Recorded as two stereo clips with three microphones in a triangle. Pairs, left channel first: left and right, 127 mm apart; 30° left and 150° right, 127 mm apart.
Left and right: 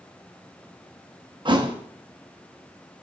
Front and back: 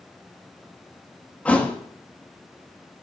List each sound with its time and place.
1.4 s a thud: 50° right, 0.9 m